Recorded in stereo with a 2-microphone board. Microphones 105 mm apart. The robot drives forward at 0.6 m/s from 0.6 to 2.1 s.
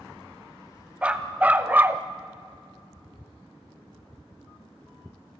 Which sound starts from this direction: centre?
A dog barking, at 1.0 s.